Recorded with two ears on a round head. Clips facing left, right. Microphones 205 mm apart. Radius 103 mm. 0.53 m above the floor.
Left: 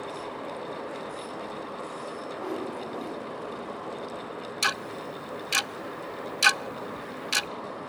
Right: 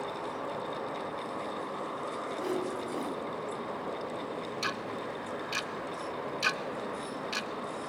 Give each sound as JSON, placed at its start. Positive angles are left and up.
{"t": 2.4, "sound": "a whoosh", "side_deg": -30, "distance_m": 3.5}
{"t": 4.6, "sound": "ticking", "side_deg": 65, "distance_m": 0.5}